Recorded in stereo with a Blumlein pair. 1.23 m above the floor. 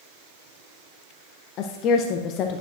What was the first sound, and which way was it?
A woman speaking, 35° left.